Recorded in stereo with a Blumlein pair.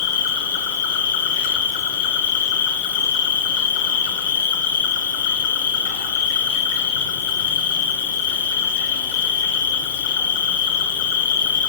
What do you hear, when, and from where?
0.0 s an insect: 50° left, 1.9 m